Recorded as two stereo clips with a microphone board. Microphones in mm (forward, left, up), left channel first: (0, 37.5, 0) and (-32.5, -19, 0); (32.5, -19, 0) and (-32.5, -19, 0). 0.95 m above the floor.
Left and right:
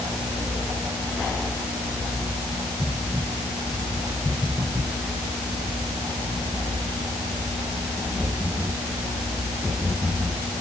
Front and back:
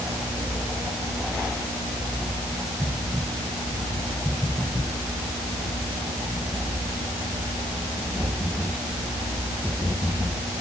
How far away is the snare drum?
No snare drum in this recording.